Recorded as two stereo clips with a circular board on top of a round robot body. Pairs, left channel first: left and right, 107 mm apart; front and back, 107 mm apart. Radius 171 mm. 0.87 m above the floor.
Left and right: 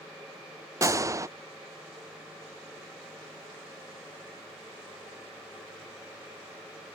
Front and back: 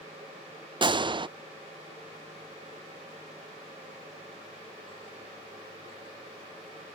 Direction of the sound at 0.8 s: 145° right.